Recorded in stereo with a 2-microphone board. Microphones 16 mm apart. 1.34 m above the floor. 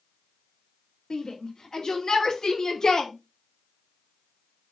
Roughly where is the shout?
Left.